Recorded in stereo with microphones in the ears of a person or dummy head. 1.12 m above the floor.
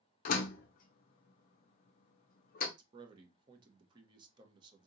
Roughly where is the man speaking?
Right.